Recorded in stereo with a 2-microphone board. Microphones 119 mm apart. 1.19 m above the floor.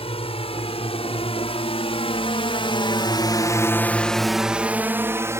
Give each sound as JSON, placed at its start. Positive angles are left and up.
{"t": 0.0, "sound": "a drone", "side_deg": 60}